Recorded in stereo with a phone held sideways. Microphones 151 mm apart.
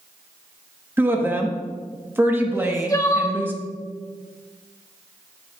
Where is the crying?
25° left (ahead or behind), 1.0 m.